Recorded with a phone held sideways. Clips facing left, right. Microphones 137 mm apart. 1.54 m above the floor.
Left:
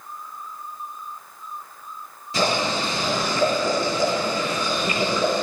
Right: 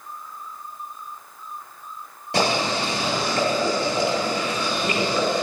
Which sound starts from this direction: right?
Boiling, at 2.3 s.